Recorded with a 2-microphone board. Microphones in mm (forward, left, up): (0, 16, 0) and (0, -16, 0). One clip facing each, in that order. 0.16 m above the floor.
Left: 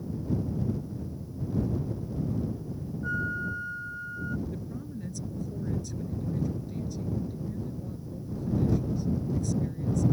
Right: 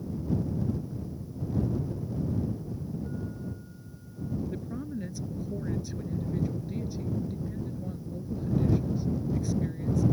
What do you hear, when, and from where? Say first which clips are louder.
3.0 s a flute: left 7 dB; 80° left
4.5 s a woman speaking: right 2 dB; 20° right (ahead or behind)